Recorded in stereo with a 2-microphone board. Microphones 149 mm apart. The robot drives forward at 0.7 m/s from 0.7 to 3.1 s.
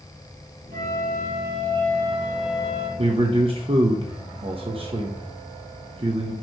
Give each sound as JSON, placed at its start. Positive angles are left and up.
{"t": 0.7, "sound": "a flute", "side_deg": -70, "distance_m": 3.0}
{"t": 3.0, "sound": "a man speaking", "side_deg": -40, "distance_m": 0.7}